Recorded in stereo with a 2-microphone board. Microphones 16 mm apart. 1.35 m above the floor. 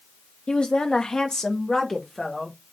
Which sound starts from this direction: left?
A woman speaking, at 0.5 s.